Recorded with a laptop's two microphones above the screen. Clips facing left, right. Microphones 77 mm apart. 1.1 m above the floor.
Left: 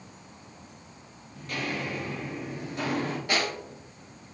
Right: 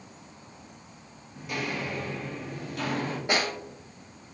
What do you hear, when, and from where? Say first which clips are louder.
1.4 s footsteps: even; 15° right (ahead or behind), 1.2 m; by 3.2 s 40° left (ahead or behind), 1.3 m
3.3 s a snare drum: right 2 dB; 25° right (ahead or behind), 1.2 m